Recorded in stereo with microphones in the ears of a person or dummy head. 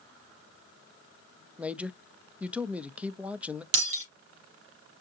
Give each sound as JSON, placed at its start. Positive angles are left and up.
{"t": 1.6, "sound": "a man speaking", "side_deg": 0, "distance_m": 0.7}
{"t": 3.7, "sound": "breaking glass", "side_deg": -75, "distance_m": 5.5}